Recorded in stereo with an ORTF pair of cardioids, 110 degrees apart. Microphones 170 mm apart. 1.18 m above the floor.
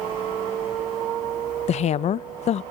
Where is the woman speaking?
45° left, 0.6 m.